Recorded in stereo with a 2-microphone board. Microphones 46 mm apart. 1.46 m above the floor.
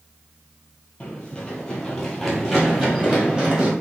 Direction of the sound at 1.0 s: 20° left (ahead or behind).